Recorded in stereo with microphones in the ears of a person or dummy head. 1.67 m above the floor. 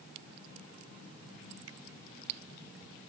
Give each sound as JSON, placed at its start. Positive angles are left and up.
{"t": 1.7, "sound": "a finger snap", "side_deg": -80}